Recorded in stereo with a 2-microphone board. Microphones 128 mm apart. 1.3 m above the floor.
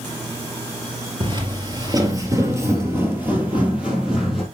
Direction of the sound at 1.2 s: 40° right (ahead or behind).